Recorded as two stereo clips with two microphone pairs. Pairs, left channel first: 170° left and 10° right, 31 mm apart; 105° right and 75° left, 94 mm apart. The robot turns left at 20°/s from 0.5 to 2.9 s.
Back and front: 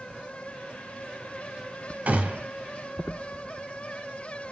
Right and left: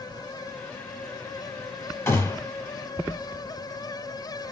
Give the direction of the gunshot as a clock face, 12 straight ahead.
2 o'clock.